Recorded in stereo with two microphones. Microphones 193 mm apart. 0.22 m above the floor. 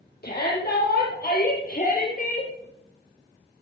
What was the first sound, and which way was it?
A shout, 55° left (ahead or behind).